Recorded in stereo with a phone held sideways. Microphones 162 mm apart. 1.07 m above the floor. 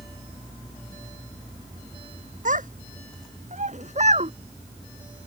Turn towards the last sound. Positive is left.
turn(degrees=-45)  # may be behind; listen again after turning